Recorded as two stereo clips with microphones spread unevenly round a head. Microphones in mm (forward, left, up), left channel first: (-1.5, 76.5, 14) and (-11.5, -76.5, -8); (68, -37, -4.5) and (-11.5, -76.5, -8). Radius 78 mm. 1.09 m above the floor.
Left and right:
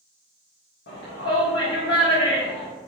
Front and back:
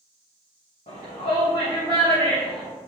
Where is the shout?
65° left, 1.8 m.